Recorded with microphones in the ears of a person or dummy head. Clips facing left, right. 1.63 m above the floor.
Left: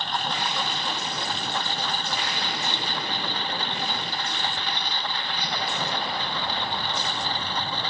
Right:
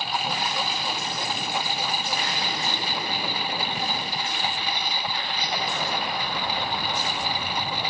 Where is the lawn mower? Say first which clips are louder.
Right 1 dB; centre (ahead or behind); by 7.9 s 5° right (ahead or behind).